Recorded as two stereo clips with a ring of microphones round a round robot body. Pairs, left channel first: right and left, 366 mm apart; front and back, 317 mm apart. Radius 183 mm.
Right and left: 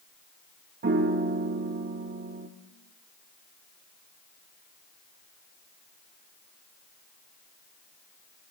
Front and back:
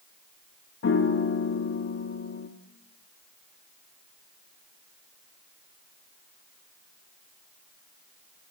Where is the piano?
35° left, 0.7 m.